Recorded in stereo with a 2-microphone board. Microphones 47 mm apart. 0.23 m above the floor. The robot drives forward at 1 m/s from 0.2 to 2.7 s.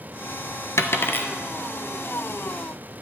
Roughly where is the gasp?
No gasp in this recording.